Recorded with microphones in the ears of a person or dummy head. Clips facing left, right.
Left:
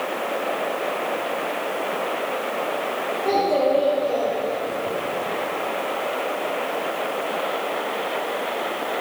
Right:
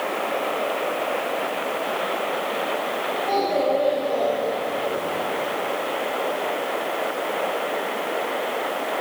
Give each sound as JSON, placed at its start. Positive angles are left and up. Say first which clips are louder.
{"t": 3.2, "sound": "a child speaking", "louder": "left 3 dB", "side_deg": 50, "distance_m": 2.5}